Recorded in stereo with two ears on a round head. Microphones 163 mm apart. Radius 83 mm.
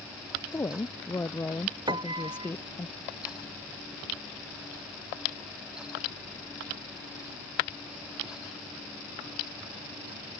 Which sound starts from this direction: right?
A piano, at 1.9 s.